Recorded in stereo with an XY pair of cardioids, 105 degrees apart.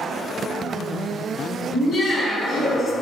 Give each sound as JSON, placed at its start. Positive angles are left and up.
{"t": 1.7, "sound": "laughter", "azimuth_deg": 35, "distance_m": 1.4}